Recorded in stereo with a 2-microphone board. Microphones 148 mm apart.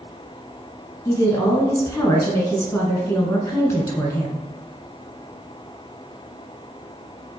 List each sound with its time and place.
1.1 s a woman speaking: 20° left (ahead or behind), 1.3 m